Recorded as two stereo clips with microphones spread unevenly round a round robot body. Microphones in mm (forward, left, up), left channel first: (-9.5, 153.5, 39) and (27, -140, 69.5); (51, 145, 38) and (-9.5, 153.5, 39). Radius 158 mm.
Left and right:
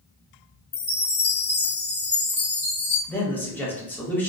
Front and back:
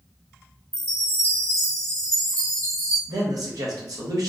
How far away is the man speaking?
About 0.8 m.